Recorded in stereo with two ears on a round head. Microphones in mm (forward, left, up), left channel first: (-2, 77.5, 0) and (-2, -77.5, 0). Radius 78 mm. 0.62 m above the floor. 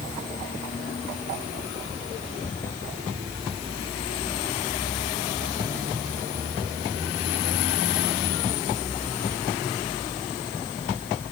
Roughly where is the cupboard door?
No cupboard door in this recording.